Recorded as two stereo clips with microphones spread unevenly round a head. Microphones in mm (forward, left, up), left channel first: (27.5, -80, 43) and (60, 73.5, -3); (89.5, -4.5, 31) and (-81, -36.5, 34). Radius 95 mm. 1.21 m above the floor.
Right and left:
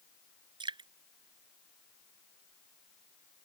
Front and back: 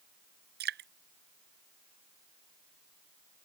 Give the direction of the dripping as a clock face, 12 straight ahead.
7 o'clock.